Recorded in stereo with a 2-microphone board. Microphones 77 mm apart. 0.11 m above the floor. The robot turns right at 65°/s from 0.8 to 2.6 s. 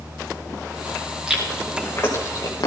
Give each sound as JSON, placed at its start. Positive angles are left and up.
{"t": 1.3, "sound": "chewing", "side_deg": -10, "distance_m": 4.0}